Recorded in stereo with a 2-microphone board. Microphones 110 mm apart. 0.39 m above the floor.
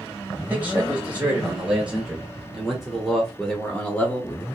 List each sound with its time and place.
0.4 s a man speaking: 15° right (ahead or behind), 2.5 m; by 4.5 s 20° left (ahead or behind), 1.5 m